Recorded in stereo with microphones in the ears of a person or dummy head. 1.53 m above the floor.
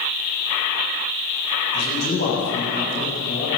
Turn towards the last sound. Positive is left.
turn(degrees=45)  # may be behind; listen again after turning